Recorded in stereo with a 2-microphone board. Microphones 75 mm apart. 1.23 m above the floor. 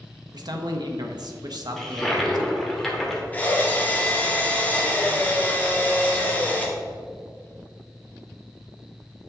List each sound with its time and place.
0.3 s a man speaking: 65° right (ahead or behind), 1.1 m
1.8 s a toilet flushing: 5° left (ahead or behind), 1.7 m
3.3 s a drill: 25° left (ahead or behind), 1.8 m